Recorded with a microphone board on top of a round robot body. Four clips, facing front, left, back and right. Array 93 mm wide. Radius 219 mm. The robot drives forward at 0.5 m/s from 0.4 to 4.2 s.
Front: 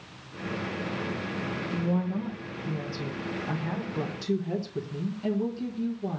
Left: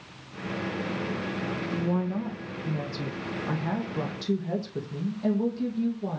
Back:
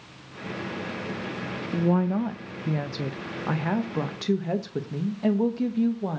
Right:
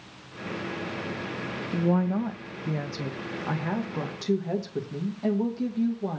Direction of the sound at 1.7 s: 140° right.